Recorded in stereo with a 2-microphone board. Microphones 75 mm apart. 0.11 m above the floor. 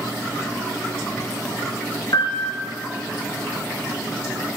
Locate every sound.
2.1 s a piano: 50° left (ahead or behind), 2.5 m